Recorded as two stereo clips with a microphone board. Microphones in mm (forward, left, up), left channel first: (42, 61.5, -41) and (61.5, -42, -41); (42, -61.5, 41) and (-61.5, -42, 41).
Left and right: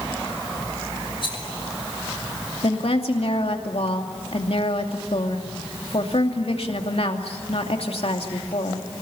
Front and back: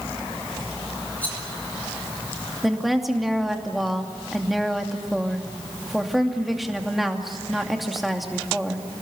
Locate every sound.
1.2 s a rattle: 65° left, 4.5 m
2.6 s a woman speaking: 80° left, 2.5 m